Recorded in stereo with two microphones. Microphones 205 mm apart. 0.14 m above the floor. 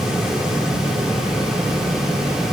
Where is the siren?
I don't hear a siren.